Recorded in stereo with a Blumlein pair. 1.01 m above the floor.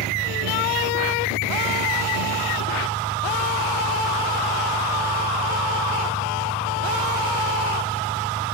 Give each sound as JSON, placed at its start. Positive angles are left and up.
{"t": 0.0, "sound": "an engine running", "azimuth_deg": -15}